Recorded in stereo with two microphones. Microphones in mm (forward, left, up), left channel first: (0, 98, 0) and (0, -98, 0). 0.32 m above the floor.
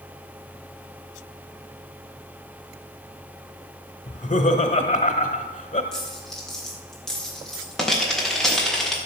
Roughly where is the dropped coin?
Centre.